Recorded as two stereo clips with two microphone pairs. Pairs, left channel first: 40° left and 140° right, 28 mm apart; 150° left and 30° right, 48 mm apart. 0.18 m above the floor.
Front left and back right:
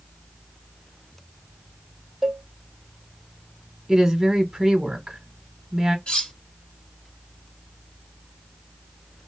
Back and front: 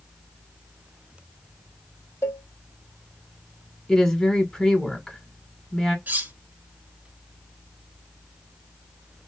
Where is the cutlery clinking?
20° left, 1.1 m.